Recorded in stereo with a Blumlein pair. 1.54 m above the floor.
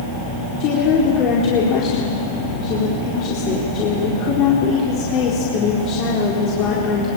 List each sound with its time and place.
0.6 s a woman speaking: 35° left, 4 m